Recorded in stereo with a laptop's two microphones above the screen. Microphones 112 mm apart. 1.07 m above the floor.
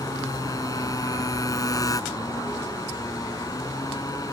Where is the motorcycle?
30° left (ahead or behind).